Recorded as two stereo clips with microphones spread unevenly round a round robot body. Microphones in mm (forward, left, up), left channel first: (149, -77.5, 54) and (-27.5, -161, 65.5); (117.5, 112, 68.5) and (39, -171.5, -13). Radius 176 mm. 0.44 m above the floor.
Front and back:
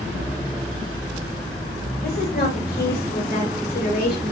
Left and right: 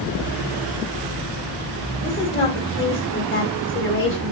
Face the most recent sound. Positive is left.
turn(degrees=20)